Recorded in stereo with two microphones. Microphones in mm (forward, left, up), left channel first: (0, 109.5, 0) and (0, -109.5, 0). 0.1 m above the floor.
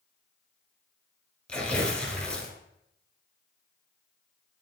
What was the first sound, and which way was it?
Tearing paper, 5° left (ahead or behind).